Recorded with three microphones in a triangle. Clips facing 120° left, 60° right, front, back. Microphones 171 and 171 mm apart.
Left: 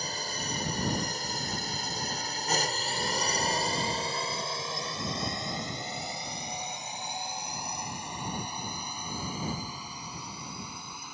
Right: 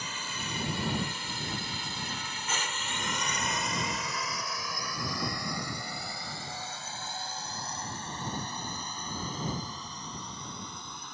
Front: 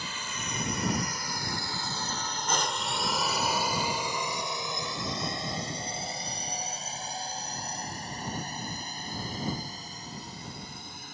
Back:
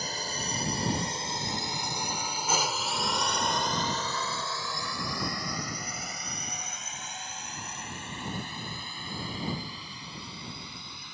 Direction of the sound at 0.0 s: 150° left.